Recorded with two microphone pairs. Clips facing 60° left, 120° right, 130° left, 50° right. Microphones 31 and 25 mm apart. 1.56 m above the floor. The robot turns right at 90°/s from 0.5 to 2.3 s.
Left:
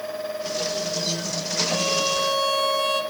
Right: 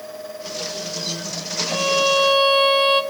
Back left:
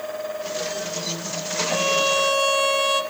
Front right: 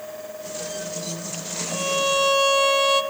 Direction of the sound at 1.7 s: Straight behind.